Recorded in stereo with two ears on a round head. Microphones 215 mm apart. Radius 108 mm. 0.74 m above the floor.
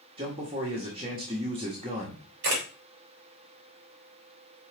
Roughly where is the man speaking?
Right.